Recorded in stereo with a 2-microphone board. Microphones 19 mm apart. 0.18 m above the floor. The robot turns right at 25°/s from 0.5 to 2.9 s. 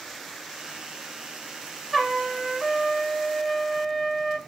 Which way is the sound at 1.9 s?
Centre (ahead or behind).